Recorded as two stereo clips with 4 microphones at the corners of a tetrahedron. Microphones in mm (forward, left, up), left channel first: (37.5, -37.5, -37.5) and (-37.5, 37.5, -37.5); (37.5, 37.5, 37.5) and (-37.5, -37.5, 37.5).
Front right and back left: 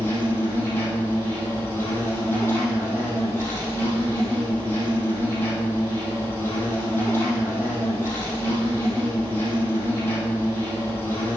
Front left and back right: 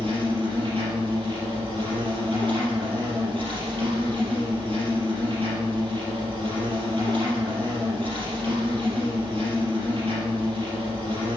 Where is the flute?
No flute in this recording.